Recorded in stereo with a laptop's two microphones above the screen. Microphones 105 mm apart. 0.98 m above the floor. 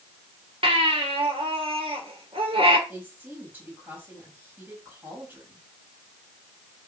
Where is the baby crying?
65° right (ahead or behind), 2.5 m.